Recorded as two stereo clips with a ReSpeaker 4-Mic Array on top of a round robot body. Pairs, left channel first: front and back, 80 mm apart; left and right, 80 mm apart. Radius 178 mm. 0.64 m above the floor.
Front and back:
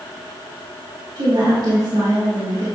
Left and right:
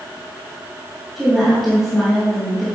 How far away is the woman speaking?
About 2 m.